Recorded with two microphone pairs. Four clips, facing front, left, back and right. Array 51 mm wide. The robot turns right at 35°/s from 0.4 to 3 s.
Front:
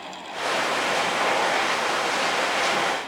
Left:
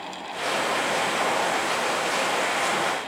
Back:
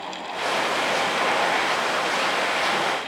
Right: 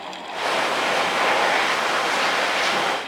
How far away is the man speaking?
No man speaking in this recording.